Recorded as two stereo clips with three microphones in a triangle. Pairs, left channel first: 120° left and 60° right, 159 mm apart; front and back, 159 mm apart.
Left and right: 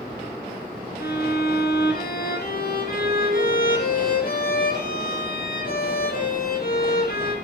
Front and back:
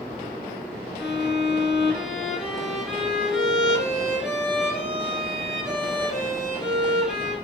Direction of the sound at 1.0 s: 95° left.